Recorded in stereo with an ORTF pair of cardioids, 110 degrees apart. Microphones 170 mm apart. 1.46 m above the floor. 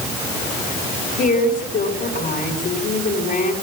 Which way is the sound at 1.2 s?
55° left.